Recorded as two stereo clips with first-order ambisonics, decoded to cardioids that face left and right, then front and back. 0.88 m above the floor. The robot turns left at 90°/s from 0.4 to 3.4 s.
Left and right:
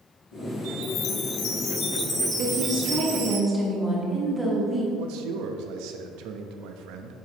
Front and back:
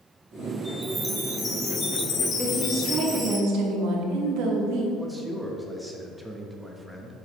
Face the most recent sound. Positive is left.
turn(degrees=-90)